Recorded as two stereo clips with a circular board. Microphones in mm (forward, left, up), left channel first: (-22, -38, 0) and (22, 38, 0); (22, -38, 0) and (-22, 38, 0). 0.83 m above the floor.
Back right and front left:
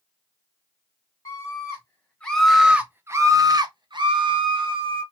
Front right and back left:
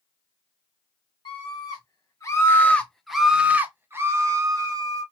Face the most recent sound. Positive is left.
turn(degrees=75)